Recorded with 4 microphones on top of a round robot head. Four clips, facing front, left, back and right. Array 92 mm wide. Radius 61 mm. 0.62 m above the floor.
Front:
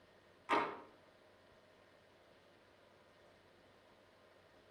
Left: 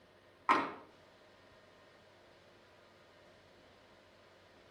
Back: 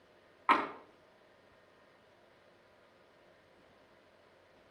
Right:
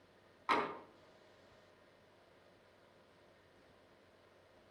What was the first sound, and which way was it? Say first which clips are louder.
Tapping: left 4 dB, back 7 dB; 155° left.